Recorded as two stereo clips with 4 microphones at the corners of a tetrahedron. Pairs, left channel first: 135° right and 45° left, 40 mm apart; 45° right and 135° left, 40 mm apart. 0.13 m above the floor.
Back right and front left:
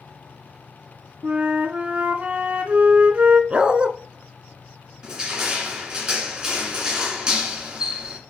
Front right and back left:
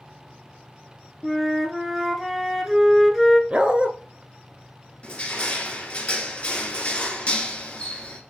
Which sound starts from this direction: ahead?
Crushing, at 5.0 s.